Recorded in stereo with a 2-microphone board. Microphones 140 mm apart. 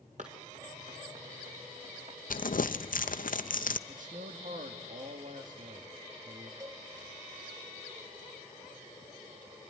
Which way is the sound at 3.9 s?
65° right (ahead or behind).